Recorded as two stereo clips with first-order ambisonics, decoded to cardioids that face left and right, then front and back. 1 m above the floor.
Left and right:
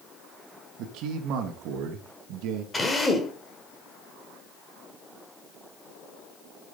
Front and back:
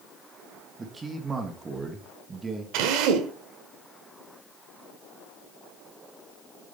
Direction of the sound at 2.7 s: 170° left.